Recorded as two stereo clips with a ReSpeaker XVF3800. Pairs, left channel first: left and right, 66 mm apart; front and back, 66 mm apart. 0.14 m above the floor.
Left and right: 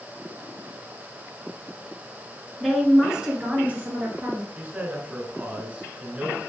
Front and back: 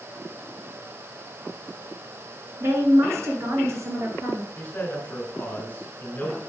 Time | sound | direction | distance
2.6 | a woman speaking | straight behind | 1.5 m
4.6 | a man speaking | 35° right | 1.9 m